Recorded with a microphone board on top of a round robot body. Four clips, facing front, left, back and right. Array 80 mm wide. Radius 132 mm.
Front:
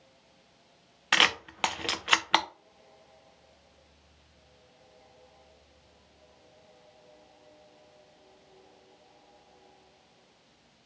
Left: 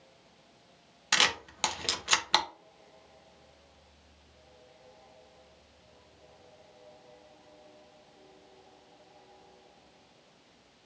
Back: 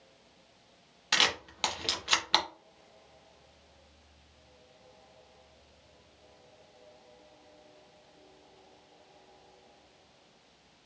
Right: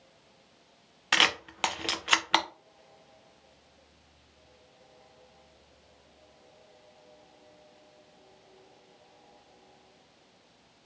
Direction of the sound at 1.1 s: 20° right.